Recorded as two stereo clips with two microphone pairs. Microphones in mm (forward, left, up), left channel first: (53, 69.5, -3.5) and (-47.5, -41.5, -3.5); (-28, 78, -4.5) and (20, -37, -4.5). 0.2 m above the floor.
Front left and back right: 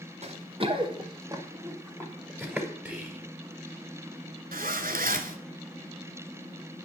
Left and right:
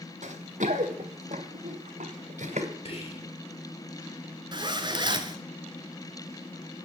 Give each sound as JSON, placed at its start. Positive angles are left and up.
{"t": 0.2, "sound": "running footsteps", "azimuth_deg": -90, "distance_m": 1.5}
{"t": 2.9, "sound": "whispering", "azimuth_deg": 145, "distance_m": 3.5}
{"t": 4.5, "sound": "a zipper", "azimuth_deg": -120, "distance_m": 0.8}